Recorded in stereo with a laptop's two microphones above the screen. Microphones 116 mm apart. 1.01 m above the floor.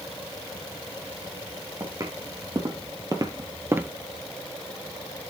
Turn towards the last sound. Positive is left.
turn(degrees=-15)  # may be behind; listen again after turning